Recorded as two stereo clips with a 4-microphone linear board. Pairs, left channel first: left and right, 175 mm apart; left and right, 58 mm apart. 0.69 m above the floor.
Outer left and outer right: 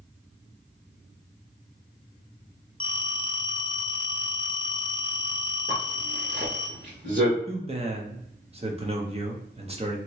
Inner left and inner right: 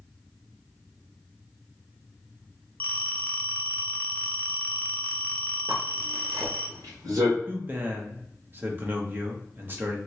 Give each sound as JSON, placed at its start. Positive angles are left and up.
{"t": 2.8, "sound": "a phone ringing", "side_deg": 25, "distance_m": 0.5}
{"t": 5.7, "sound": "a zipper", "side_deg": -70, "distance_m": 1.6}
{"t": 7.5, "sound": "a man speaking", "side_deg": -35, "distance_m": 0.7}